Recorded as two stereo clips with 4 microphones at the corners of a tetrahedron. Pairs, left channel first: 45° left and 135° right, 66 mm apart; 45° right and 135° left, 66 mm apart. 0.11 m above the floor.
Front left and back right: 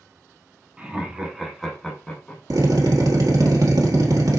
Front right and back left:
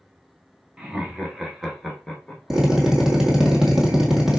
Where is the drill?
140° right, 1.5 m.